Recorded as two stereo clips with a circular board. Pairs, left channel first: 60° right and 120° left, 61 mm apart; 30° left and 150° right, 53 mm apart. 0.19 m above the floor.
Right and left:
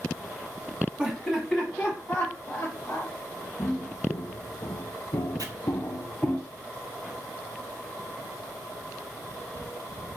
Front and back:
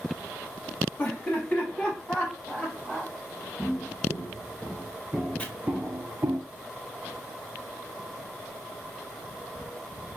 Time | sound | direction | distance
1.0 | laughter | 55° left | 1.1 m
3.6 | footsteps | 35° right | 1.4 m
5.4 | chopping | 95° left | 0.7 m